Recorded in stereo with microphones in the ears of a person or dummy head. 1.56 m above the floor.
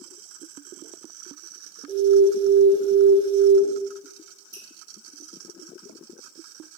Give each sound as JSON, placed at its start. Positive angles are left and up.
{"t": 1.9, "sound": "an alarm", "side_deg": -15, "distance_m": 1.1}
{"t": 4.5, "sound": "dripping", "side_deg": 15, "distance_m": 1.0}